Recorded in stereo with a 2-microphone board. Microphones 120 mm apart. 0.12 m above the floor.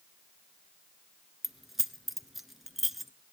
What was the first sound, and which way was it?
Keys jangling, centre (ahead or behind).